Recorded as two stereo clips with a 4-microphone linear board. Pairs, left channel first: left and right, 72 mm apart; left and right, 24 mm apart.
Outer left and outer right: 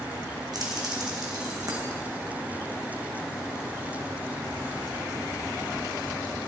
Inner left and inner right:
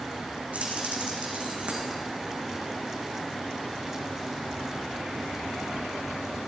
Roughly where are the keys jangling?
Right.